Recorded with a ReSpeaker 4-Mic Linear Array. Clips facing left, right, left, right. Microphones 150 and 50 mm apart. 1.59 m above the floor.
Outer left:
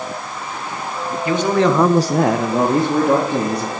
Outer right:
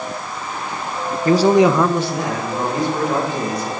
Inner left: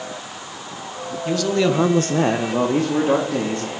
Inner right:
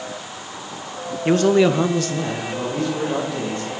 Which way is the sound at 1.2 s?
40° right (ahead or behind).